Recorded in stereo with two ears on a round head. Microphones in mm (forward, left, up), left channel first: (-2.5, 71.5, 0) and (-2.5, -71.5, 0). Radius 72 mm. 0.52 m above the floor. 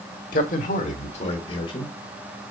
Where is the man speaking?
55° left (ahead or behind), 1.5 m; by 1.9 s 30° left (ahead or behind), 2.0 m.